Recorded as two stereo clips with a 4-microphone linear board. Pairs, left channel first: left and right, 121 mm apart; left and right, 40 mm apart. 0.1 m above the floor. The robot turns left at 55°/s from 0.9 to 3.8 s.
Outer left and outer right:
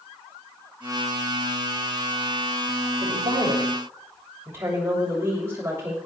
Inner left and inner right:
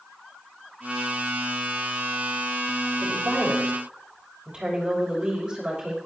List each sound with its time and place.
3.0 s a woman speaking: 115° right, 6 m; by 6.0 s 160° right, 6 m